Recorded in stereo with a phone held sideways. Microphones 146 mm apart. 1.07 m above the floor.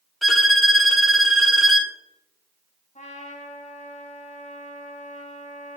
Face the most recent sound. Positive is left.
turn(degrees=50)  # may be behind; listen again after turning